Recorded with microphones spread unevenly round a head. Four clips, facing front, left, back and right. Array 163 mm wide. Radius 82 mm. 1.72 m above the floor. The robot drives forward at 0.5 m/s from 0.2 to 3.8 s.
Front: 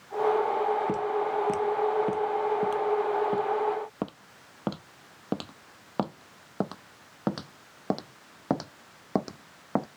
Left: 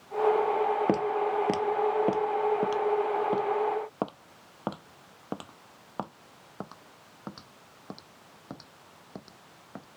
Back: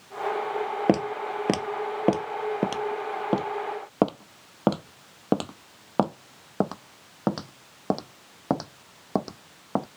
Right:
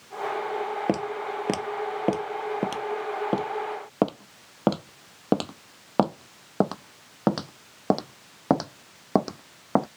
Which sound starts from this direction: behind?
Footsteps, at 0.9 s.